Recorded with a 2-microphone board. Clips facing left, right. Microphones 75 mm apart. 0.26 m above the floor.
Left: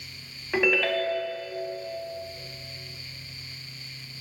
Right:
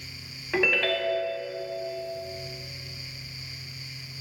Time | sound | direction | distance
0.5 | a ringtone | 5° left (ahead or behind) | 0.5 m